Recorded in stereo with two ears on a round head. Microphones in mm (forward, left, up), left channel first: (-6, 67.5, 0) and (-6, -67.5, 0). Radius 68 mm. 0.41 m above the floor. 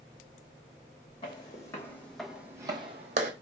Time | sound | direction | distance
1.2 | footsteps | 30° left (ahead or behind) | 1.8 m